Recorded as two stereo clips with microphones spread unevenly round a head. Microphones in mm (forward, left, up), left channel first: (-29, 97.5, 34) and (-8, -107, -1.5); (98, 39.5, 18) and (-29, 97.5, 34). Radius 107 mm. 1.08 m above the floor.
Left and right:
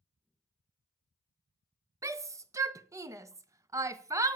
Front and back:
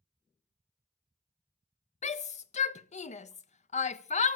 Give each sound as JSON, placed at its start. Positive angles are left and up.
{"t": 2.0, "sound": "a shout", "azimuth_deg": -15, "distance_m": 1.2}